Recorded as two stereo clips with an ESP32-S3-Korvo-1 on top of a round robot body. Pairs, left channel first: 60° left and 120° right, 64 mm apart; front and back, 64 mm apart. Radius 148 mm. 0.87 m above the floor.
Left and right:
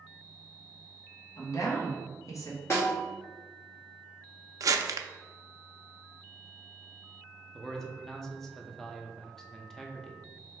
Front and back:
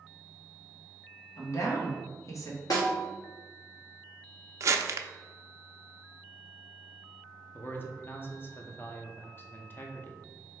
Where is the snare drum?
15° left, 1.7 m.